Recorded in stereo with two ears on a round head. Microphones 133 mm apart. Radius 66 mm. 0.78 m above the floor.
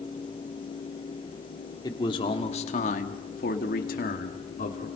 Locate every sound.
1.8 s a man speaking: 25° left (ahead or behind), 2 m; by 4.9 s 50° left (ahead or behind), 2.5 m